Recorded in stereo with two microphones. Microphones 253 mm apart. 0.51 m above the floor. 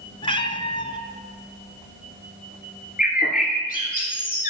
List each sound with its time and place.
0.2 s a cat meowing: 20° left (ahead or behind), 0.8 m
3.0 s a bird: 35° left (ahead or behind), 2 m